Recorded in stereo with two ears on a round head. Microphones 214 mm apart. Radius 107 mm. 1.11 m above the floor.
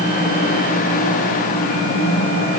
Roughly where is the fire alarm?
No fire alarm in this recording.